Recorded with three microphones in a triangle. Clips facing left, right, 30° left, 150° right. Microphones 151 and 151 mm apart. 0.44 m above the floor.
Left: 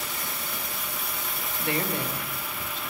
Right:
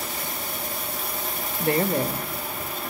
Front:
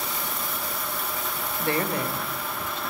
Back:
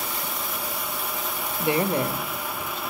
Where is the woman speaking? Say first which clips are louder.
Right 7 dB, back 4 dB; 80° right, 1.0 m; by 2.8 s 125° right, 1.7 m.